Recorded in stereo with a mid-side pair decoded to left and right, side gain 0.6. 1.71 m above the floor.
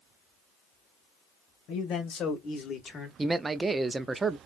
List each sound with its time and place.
1.7 s a man speaking: 60° left, 1.8 m; by 3.1 s 25° left, 1.5 m
3.2 s a man speaking: 20° right, 0.6 m